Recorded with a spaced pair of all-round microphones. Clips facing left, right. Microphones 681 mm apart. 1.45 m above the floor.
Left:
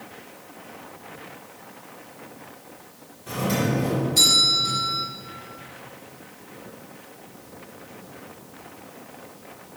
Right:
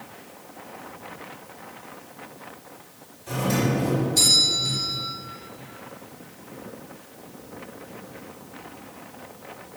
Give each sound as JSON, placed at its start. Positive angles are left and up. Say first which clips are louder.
{"t": 3.3, "sound": "a doorbell", "louder": "even", "side_deg": 75, "distance_m": 2.5}